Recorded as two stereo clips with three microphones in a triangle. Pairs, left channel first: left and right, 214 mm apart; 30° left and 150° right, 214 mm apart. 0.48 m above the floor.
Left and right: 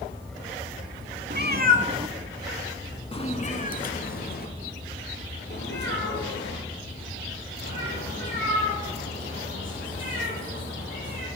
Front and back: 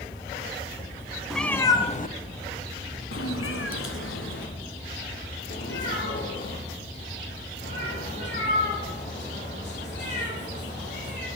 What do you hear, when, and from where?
1.3 s a cat meowing: 60° right, 0.9 m; by 11.3 s 65° left, 6.5 m